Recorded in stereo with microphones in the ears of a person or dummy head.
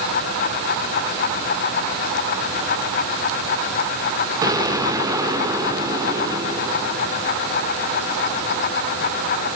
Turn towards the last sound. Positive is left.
turn(degrees=-20)  # may be behind; listen again after turning